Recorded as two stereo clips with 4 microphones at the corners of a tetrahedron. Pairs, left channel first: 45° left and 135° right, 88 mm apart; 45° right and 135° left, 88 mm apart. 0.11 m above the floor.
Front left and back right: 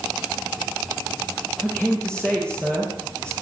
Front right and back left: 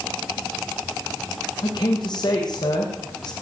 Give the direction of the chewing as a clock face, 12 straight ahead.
I don't hear chewing.